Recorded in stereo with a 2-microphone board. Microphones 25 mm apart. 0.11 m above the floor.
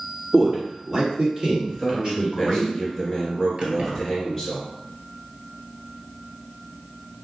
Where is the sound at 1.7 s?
5° right (ahead or behind), 1.7 m.